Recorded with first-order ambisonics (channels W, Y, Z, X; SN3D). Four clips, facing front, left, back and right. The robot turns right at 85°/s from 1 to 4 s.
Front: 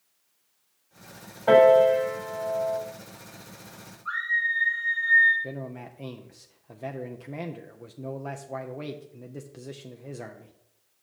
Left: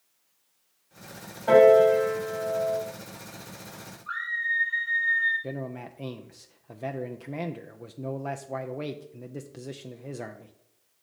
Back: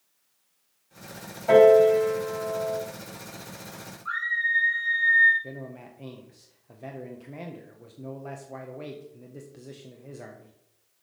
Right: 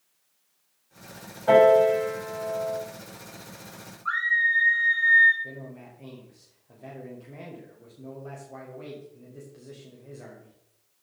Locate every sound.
1.5 s a piano: 5° right, 4.5 m; by 2.8 s 110° left, 4.5 m
4.0 s a scream: 100° right, 2 m
5.4 s a man speaking: 65° left, 0.5 m